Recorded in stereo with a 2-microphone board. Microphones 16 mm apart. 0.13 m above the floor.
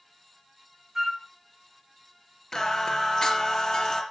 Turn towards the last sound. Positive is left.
turn(degrees=50)  # may be behind; listen again after turning